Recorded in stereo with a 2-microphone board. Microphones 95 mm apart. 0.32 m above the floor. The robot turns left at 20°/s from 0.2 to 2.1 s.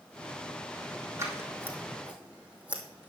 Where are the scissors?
30° right (ahead or behind), 2.5 m; by 3.1 s 15° right (ahead or behind), 2.5 m.